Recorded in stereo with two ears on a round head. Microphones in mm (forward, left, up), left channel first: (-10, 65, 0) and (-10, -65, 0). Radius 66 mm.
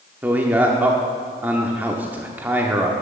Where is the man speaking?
15° right (ahead or behind), 1.0 m.